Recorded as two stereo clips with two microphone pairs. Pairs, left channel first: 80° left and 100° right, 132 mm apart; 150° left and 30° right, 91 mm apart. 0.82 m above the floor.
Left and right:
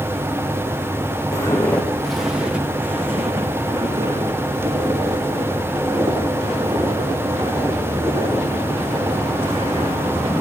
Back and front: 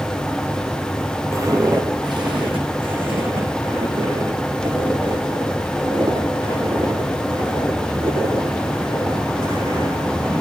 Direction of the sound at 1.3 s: 20° left.